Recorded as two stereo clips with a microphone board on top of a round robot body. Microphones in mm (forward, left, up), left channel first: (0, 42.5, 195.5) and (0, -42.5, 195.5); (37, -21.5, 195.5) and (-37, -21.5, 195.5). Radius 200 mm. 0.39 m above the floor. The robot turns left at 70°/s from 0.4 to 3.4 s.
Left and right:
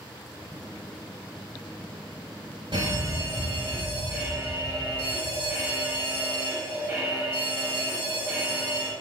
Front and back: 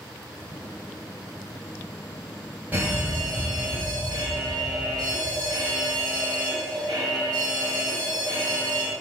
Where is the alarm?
110° right, 4 m; by 8.9 s 160° right, 4 m.